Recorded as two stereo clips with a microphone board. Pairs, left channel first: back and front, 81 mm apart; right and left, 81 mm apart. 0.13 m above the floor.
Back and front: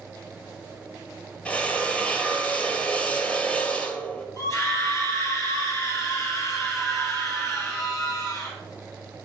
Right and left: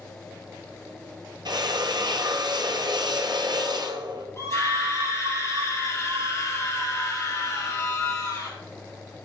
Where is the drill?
110° left, 1.3 m.